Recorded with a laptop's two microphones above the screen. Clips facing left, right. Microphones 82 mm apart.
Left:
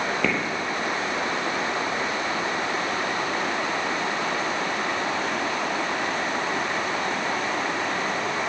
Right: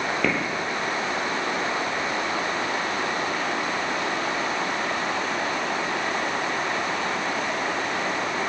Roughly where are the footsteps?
Centre.